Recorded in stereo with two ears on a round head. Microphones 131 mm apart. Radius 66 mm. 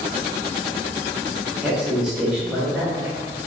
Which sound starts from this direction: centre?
A woman speaking, at 1.6 s.